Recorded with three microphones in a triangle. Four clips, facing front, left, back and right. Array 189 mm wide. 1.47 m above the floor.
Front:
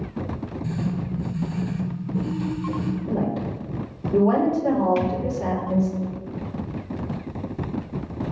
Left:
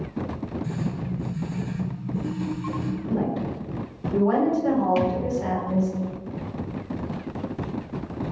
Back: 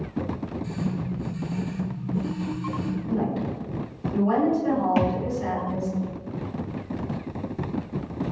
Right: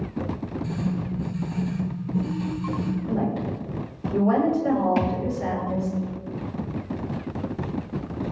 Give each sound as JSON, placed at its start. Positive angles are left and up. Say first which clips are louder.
{"t": 0.6, "sound": "writing", "louder": "right 2 dB, front 3 dB", "azimuth_deg": -35, "distance_m": 7.0}
{"t": 3.1, "sound": "a woman speaking", "louder": "left 2 dB, back 1 dB", "azimuth_deg": -5, "distance_m": 5.5}
{"t": 5.0, "sound": "a thud", "louder": "left 1 dB, back 1 dB", "azimuth_deg": -160, "distance_m": 1.9}